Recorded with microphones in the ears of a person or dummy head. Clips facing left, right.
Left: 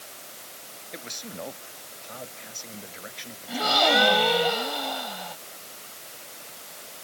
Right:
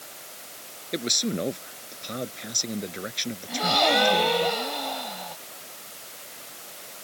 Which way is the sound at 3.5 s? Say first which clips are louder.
Even; centre (ahead or behind).